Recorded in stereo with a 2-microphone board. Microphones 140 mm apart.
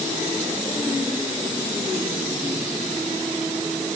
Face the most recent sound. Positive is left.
No sound to turn to.